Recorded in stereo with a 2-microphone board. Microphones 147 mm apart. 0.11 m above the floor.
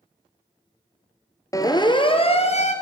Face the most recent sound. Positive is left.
turn(degrees=50)  # may be behind; listen again after turning